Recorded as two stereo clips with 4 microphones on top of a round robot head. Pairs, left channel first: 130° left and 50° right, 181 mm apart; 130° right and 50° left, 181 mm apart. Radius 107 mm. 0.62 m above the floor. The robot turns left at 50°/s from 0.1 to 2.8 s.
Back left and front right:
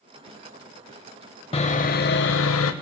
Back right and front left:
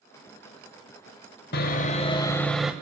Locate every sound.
1.5 s sawing: 165° right, 0.6 m; by 2.7 s 135° left, 0.6 m